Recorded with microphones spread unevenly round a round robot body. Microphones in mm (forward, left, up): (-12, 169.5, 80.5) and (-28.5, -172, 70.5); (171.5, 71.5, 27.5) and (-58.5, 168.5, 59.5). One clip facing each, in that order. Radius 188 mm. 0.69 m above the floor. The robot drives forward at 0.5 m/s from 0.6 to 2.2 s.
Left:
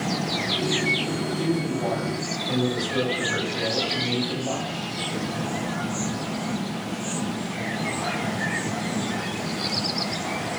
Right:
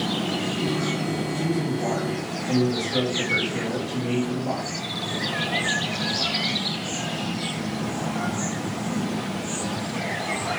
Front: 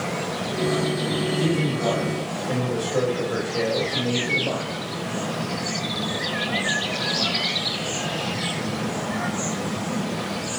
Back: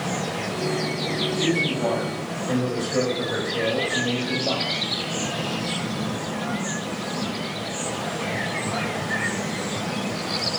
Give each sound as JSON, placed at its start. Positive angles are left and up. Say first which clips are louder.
{"t": 1.4, "sound": "a man speaking", "louder": "left 2 dB, back 2 dB", "azimuth_deg": -75, "distance_m": 1.9}